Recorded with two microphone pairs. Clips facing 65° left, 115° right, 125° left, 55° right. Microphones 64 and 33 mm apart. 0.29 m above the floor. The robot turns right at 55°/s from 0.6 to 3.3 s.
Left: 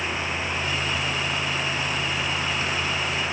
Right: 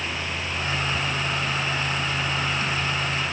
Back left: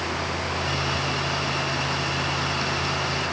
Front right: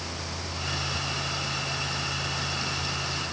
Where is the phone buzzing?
I don't hear a phone buzzing.